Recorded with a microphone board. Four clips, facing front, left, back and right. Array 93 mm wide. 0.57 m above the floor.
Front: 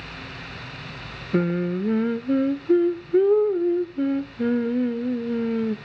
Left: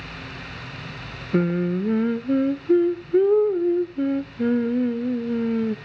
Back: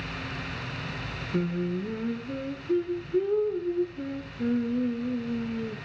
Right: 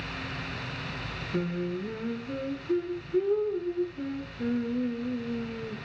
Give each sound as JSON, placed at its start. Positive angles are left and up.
{"t": 1.3, "sound": "singing", "azimuth_deg": 45, "distance_m": 0.7}